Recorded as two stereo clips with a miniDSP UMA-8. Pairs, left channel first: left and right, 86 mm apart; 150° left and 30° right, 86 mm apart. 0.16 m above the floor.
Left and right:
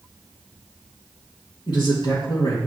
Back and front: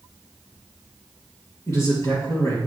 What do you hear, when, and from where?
1.7 s a man speaking: 105° left, 3.5 m